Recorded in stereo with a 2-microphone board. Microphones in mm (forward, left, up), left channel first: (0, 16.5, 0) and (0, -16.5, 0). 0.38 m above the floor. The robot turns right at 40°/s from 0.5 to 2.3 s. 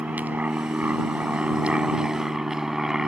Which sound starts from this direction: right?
An aircraft, at 0.0 s.